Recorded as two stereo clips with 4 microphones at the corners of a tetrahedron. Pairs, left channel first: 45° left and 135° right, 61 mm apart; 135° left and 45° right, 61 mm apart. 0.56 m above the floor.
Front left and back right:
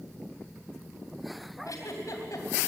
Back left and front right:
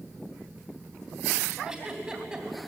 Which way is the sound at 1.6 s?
35° left.